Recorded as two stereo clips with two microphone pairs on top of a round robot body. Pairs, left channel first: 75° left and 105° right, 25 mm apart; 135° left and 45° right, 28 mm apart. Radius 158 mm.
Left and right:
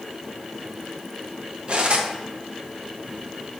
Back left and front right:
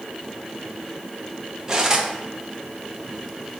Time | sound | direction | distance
1.7 | cutlery clinking | 85° right | 0.9 m